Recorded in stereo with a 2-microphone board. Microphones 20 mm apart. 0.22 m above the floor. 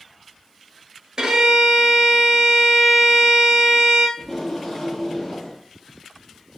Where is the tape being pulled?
25° left (ahead or behind), 1.3 m.